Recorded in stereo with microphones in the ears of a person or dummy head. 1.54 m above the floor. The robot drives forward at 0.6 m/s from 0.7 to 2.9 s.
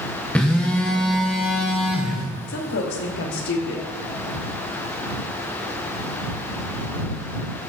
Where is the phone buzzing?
5° left (ahead or behind), 0.5 m; by 2.2 s centre (ahead or behind), 1.2 m.